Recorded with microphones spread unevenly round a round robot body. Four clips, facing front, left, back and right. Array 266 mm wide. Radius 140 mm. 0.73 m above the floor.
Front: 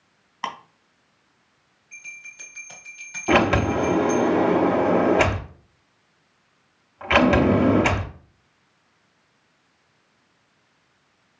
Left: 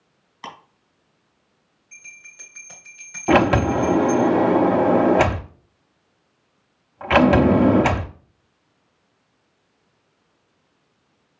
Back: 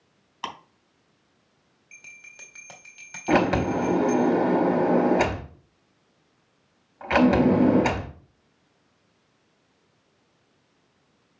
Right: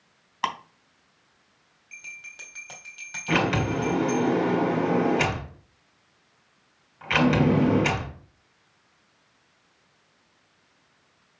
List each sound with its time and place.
0.4 s ticking: 70° right, 3 m
1.9 s a bell: 175° right, 1.6 m
3.3 s a sliding door: 65° left, 0.6 m